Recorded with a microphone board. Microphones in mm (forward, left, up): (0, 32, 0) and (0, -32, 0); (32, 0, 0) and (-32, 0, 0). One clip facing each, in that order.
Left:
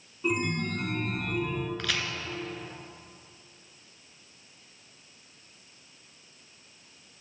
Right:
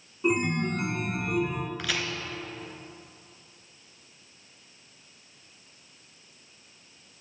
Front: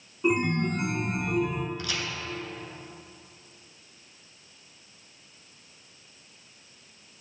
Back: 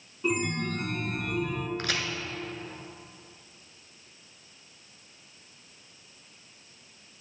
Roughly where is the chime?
Ahead right.